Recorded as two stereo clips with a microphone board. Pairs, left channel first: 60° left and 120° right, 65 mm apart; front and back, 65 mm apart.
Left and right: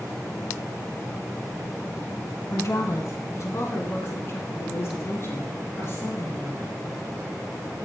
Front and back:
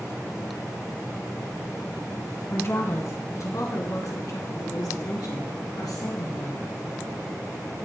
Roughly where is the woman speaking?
Ahead left.